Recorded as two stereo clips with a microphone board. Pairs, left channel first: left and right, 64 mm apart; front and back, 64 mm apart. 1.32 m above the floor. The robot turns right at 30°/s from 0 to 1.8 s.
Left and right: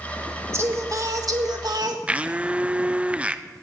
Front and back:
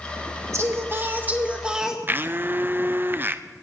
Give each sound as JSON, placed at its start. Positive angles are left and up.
{"t": 0.5, "sound": "singing", "azimuth_deg": -140, "distance_m": 1.6}
{"t": 2.1, "sound": "a blender", "azimuth_deg": -150, "distance_m": 0.6}